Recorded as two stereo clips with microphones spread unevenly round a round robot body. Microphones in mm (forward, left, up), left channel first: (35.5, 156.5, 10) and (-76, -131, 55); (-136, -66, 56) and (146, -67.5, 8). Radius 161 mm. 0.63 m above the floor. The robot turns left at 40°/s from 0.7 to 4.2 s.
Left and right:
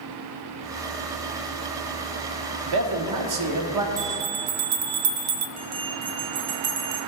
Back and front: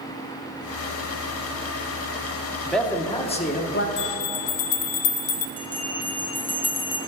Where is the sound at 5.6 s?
95° right, 1.3 m.